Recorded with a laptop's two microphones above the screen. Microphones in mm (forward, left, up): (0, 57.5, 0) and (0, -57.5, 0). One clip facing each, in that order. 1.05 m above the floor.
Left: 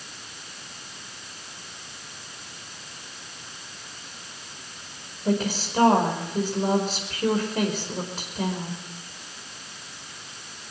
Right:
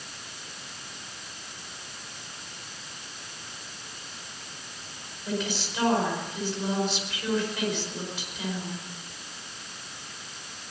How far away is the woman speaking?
About 5 m.